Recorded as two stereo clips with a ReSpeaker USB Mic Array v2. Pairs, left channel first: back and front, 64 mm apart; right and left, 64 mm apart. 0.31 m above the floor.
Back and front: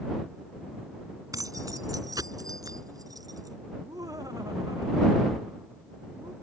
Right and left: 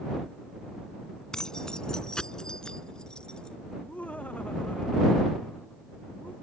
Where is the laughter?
20° right.